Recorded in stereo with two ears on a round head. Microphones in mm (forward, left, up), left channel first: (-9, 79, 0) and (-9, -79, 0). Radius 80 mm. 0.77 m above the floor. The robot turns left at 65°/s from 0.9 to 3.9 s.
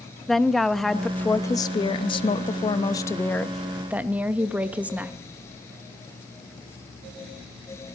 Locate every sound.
0.3 s a woman speaking: centre (ahead or behind), 0.8 m; by 5.2 s 10° right (ahead or behind), 0.8 m